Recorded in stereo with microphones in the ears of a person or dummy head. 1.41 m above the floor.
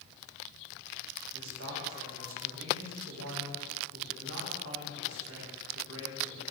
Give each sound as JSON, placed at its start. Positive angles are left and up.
{"t": 1.3, "sound": "a man speaking", "side_deg": -80, "distance_m": 1.9}